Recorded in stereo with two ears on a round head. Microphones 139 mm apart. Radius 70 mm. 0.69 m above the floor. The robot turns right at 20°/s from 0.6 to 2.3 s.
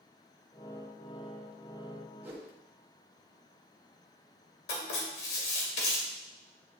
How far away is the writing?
About 2 m.